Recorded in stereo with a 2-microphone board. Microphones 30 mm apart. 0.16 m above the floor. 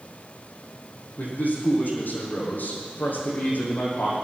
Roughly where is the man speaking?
Left.